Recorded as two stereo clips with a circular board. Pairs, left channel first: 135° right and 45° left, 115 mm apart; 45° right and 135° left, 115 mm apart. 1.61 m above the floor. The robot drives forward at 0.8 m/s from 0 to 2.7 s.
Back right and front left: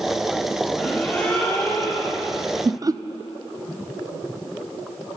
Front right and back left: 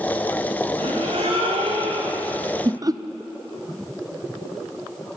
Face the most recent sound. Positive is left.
turn(degrees=90)